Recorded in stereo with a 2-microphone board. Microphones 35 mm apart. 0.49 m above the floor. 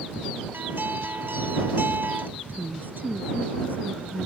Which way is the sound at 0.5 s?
70° right (ahead or behind).